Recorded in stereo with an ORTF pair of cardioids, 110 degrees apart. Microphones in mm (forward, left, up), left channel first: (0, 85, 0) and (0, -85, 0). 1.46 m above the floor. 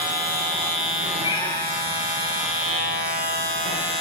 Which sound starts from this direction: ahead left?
A cat meowing, at 1.2 s.